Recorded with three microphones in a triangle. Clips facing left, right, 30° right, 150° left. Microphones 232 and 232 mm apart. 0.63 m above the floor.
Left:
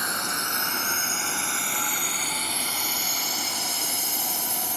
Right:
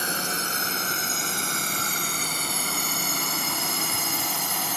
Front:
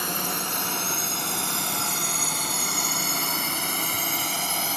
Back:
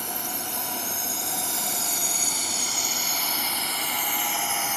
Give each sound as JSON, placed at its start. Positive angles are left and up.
{"t": 0.0, "sound": "a drone", "azimuth_deg": -30}